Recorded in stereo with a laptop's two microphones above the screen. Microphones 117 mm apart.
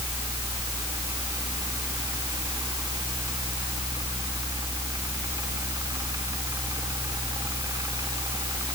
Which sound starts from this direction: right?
A fan, at 0.0 s.